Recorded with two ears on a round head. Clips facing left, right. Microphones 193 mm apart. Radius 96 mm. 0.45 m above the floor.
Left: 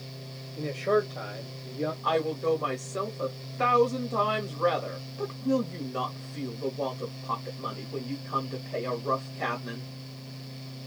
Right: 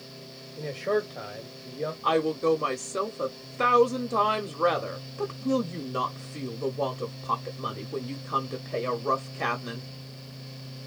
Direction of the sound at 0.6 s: 5° right (ahead or behind).